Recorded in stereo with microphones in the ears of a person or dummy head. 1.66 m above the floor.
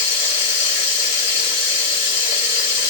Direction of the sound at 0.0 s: 60° left (ahead or behind).